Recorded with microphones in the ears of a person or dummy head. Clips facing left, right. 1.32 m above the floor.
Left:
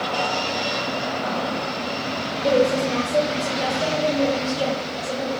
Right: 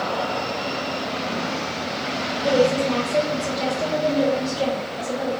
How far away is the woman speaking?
About 1.2 m.